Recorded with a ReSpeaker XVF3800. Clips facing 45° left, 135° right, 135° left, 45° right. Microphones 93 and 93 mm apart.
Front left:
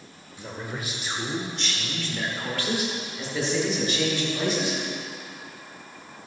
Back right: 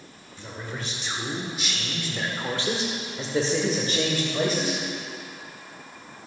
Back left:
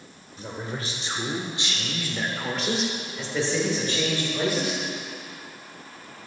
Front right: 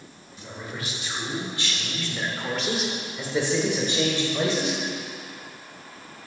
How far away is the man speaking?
About 1.8 m.